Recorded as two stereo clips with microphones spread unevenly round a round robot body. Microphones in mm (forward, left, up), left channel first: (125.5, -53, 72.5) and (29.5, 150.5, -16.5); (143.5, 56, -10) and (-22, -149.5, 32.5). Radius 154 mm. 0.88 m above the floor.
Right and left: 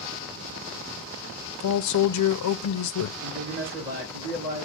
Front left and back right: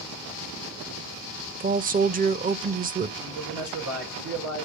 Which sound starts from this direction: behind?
A man speaking, at 3.2 s.